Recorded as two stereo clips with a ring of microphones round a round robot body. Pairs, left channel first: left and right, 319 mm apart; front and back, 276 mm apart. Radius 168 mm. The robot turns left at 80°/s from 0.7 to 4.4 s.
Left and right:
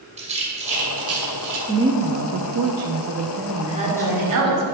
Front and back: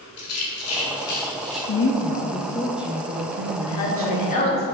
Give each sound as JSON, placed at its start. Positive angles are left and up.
{"t": 0.2, "sound": "a rattle", "azimuth_deg": -25, "distance_m": 2.0}
{"t": 1.7, "sound": "a woman speaking", "azimuth_deg": -5, "distance_m": 0.7}
{"t": 3.7, "sound": "a woman speaking", "azimuth_deg": -10, "distance_m": 2.0}